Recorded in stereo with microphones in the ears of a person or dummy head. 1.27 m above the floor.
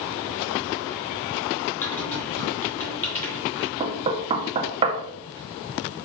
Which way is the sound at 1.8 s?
10° left (ahead or behind).